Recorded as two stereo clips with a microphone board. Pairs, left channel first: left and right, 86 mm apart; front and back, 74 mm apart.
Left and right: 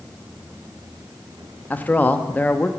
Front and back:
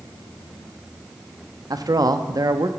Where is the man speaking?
155° left, 0.5 m.